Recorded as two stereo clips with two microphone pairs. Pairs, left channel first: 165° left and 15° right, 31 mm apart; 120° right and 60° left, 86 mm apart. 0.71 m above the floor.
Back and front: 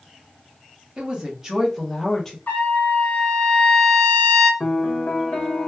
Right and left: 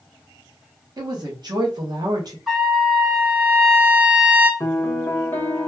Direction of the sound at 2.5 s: 145° left.